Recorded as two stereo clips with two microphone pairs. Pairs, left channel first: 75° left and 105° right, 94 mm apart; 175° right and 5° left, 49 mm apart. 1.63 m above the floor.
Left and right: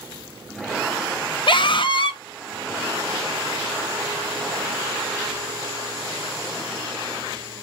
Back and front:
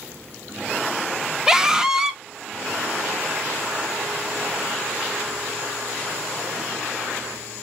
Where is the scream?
85° left, 0.8 m.